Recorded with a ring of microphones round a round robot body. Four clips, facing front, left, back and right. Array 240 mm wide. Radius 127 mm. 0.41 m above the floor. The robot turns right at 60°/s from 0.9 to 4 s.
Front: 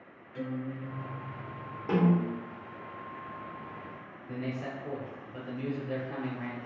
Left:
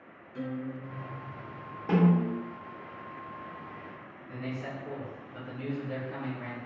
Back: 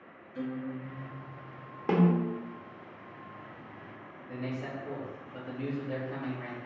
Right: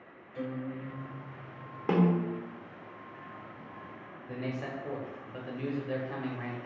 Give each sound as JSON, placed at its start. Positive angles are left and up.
{"t": 0.3, "sound": "a guitar", "azimuth_deg": -10, "distance_m": 1.7}
{"t": 1.9, "sound": "a snare drum", "azimuth_deg": -130, "distance_m": 0.8}
{"t": 4.3, "sound": "a man speaking", "azimuth_deg": -75, "distance_m": 0.9}